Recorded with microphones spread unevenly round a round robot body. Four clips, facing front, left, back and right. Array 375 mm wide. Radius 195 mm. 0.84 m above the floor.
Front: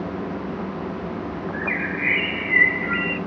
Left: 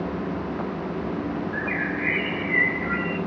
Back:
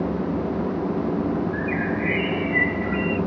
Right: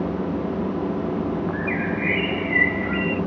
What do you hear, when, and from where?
1.5 s a bird: 75° right, 0.5 m